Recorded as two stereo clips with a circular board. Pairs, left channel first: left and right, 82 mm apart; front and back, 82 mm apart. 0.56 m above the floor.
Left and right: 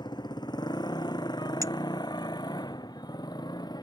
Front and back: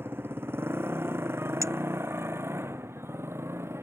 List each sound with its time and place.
0.0 s a motorcycle: 115° left; by 3.8 s 120° left
1.6 s a clink: 135° right